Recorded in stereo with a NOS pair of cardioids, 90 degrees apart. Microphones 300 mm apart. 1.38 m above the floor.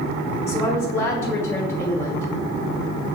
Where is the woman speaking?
10° left, 0.7 m.